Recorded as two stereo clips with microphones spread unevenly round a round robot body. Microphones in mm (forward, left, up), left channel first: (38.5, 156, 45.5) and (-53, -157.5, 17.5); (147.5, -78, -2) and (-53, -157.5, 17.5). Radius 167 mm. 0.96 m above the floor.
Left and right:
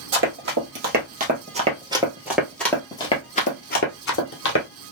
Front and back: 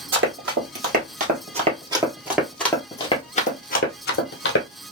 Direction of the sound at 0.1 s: 160° right.